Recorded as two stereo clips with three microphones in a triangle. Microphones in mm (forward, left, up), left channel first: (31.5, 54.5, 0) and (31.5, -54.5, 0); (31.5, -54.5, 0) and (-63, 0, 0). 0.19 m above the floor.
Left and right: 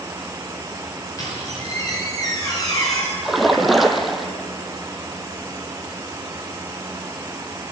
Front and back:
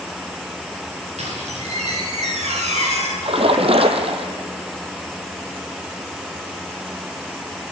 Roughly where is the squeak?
Behind left.